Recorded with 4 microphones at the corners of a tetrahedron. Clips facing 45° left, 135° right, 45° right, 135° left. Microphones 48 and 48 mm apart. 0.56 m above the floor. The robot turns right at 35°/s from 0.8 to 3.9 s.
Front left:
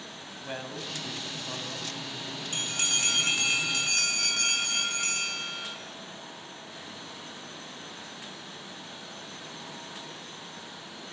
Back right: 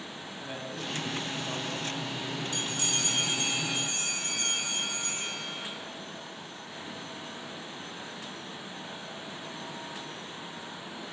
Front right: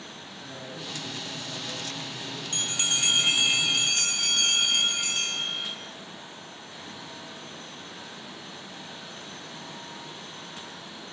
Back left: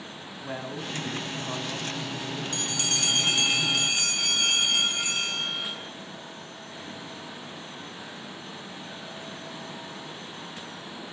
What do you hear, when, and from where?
0.4 s a man speaking: 110° left, 4 m; by 2.4 s 165° left, 4 m
2.5 s a bell: 5° left, 8 m; by 5.8 s 50° left, 8 m